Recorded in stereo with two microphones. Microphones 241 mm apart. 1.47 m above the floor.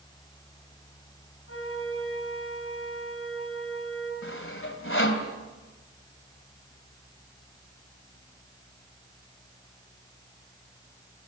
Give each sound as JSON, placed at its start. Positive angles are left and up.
{"t": 1.5, "sound": "a flute", "side_deg": 65, "distance_m": 3.5}
{"t": 4.2, "sound": "sawing", "side_deg": 60, "distance_m": 2.0}